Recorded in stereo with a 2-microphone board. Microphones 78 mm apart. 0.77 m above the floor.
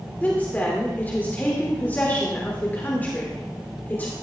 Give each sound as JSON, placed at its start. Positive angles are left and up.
{"t": 0.2, "sound": "a woman speaking", "side_deg": 25, "distance_m": 2.0}